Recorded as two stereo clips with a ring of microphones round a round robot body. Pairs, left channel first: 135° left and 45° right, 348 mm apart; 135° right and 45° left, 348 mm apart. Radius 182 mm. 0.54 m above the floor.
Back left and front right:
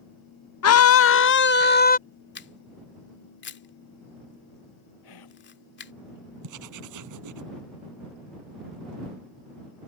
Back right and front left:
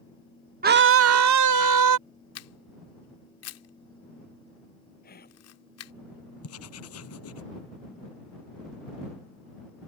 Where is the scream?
105° left; by 2.0 s 70° left.